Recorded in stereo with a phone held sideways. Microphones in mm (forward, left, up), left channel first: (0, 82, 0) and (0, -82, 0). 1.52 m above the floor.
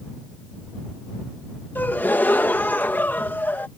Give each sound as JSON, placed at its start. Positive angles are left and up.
{"t": 1.8, "sound": "a gasp", "side_deg": 10}